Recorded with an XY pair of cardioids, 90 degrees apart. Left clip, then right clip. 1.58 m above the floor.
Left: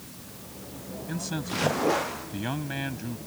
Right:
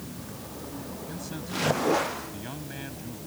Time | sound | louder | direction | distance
1.1 | a man speaking | left 5 dB | 60° left | ?